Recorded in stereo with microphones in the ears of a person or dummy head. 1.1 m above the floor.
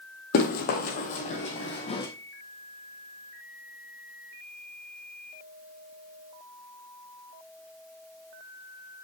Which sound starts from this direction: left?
Running footsteps, at 0.3 s.